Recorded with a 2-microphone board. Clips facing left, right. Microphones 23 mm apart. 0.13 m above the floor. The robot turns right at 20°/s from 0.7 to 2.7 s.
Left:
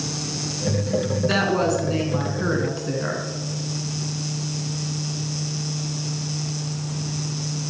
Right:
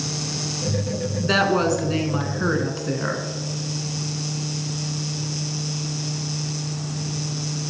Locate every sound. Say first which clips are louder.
1.2 s a woman speaking: right 3 dB; 20° right (ahead or behind), 1.0 m; by 3.2 s 15° right (ahead or behind), 1.0 m